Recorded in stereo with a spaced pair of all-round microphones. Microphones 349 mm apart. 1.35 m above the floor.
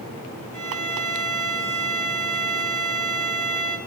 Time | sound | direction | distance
0.5 | a violin | 55° right (ahead or behind) | 0.8 m